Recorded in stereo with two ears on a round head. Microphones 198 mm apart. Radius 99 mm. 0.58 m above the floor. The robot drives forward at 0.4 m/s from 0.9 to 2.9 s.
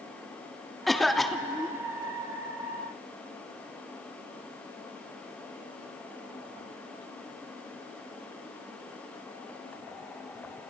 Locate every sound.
0.9 s a cough: centre (ahead or behind), 0.7 m